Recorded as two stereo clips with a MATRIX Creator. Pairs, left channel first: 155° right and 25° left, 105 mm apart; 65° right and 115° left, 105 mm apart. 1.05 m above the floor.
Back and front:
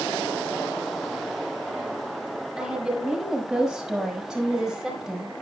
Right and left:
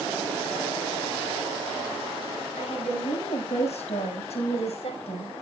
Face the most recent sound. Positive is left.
turn(degrees=-60)